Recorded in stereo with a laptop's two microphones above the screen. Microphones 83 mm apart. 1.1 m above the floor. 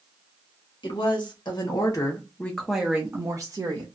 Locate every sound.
0.8 s a woman speaking: 60° left (ahead or behind), 1.4 m; by 3.9 s 50° right (ahead or behind), 1.0 m